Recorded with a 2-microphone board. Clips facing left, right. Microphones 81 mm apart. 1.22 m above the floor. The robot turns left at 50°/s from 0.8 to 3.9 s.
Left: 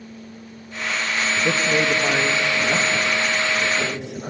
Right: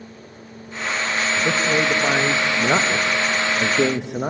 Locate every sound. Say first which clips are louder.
1.4 s a man speaking: even; 20° left, 1.0 m; by 4.3 s 110° right, 1.0 m